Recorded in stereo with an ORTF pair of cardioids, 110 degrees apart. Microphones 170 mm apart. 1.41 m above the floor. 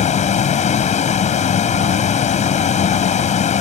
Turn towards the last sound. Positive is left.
turn(degrees=45)